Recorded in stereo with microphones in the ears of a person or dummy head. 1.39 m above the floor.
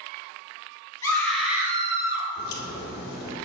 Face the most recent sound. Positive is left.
turn(degrees=55)  # may be behind; listen again after turning